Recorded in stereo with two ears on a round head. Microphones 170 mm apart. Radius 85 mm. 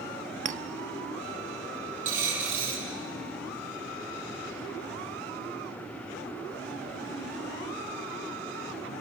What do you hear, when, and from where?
0.5 s a clink: 40° right (ahead or behind), 0.5 m
2.0 s a dropped coin: 45° right (ahead or behind), 6 m